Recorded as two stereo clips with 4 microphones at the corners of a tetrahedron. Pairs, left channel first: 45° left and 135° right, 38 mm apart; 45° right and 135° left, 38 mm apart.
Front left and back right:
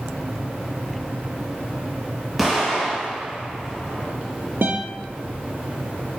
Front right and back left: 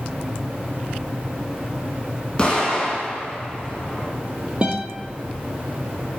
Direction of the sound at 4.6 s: 160° right.